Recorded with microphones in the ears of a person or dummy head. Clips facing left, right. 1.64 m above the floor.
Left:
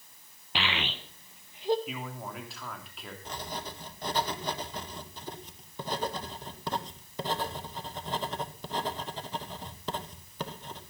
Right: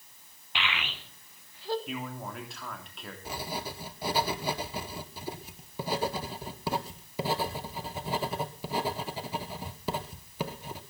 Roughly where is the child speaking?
Left.